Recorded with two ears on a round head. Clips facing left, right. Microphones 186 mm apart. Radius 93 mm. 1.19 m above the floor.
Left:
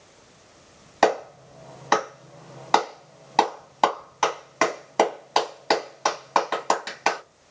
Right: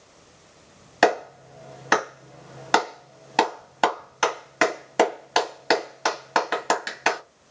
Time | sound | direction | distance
1.0 | a clap | 10° right (ahead or behind) | 1.5 m